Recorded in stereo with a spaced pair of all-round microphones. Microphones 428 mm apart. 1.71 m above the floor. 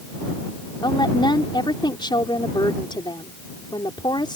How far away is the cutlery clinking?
I don't hear cutlery clinking.